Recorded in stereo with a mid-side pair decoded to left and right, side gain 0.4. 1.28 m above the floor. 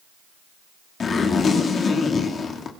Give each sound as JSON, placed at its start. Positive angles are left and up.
{"t": 1.0, "sound": "a zipper", "azimuth_deg": 55, "distance_m": 2.0}